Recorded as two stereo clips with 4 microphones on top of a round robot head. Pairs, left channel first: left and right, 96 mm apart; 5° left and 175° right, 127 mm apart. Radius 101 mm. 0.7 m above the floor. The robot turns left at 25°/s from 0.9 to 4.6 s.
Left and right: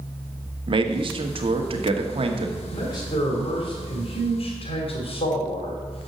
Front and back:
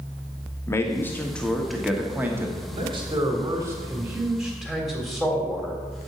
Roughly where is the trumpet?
No trumpet in this recording.